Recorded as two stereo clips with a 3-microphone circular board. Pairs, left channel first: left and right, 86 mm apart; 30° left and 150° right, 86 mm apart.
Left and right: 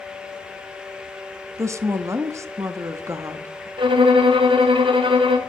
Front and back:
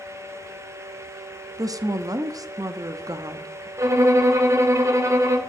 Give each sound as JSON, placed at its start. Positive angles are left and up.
{"t": 1.6, "sound": "a woman speaking", "azimuth_deg": -130, "distance_m": 0.7}
{"t": 3.8, "sound": "a violin", "azimuth_deg": -95, "distance_m": 1.2}